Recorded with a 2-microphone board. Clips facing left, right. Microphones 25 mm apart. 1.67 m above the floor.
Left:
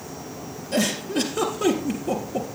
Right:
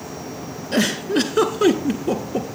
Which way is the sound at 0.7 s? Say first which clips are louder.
Right 4 dB; 30° right (ahead or behind).